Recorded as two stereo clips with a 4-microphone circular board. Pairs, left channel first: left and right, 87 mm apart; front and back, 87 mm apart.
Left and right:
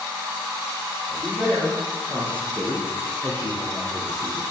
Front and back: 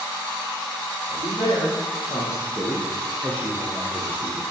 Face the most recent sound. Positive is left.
turn(degrees=130)